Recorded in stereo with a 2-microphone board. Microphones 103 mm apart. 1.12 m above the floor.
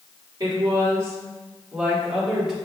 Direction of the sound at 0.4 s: 40° right (ahead or behind).